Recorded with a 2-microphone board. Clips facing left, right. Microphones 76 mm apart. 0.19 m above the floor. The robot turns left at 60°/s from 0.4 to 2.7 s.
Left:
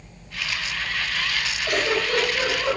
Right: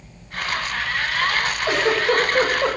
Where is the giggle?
25° right (ahead or behind), 7.5 m; by 2.8 s 80° right, 7.5 m.